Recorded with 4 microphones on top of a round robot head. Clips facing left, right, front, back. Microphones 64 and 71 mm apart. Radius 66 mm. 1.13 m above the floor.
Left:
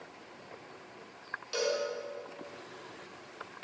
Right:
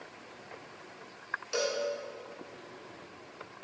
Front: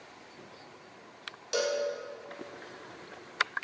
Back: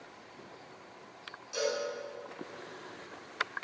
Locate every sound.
1.5 s a cowbell: 15° right, 1.5 m